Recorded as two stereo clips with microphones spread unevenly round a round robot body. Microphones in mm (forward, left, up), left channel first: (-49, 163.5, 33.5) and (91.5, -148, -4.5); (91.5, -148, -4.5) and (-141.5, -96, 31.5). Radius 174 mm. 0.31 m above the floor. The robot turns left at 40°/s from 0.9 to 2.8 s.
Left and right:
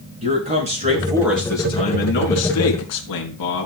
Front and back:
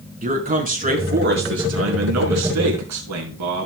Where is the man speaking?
135° right, 5 m; by 3.7 s 150° left, 5 m.